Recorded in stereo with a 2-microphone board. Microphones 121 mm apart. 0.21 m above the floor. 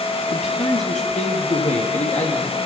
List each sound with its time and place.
0.3 s a man speaking: 75° left (ahead or behind), 5 m; by 2.6 s 80° left, 6.5 m